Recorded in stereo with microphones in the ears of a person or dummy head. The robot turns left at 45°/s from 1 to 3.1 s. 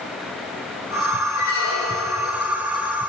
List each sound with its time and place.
1.4 s a squeak: 110° left, 2.5 m; by 2.3 s 70° left, 2.5 m